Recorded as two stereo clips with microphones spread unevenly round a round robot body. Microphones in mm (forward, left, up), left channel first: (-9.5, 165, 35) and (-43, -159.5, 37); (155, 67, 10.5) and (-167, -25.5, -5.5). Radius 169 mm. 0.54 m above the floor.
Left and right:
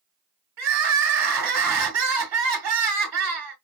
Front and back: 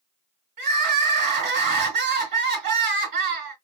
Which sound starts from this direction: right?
Crying, at 0.6 s.